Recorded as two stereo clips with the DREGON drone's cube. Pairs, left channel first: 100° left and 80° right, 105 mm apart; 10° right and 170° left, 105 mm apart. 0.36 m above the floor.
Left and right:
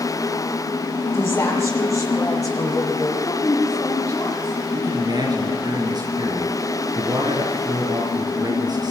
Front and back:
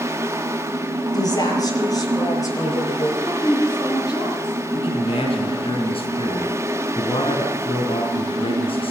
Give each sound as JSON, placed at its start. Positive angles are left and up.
{"t": 1.1, "sound": "a woman speaking", "azimuth_deg": 40, "distance_m": 8.0}
{"t": 3.2, "sound": "a woman speaking", "azimuth_deg": 45, "distance_m": 9.5}
{"t": 4.7, "sound": "a man speaking", "azimuth_deg": -35, "distance_m": 4.0}